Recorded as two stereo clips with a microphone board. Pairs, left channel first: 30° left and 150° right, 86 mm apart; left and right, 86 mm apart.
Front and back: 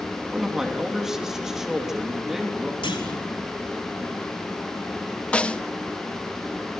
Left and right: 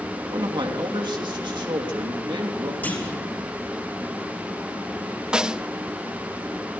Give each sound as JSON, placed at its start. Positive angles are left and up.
{"t": 0.3, "sound": "a man speaking", "azimuth_deg": -65, "distance_m": 3.0}
{"t": 2.8, "sound": "a clunk", "azimuth_deg": 20, "distance_m": 5.5}
{"t": 5.3, "sound": "a snare drum", "azimuth_deg": -25, "distance_m": 0.6}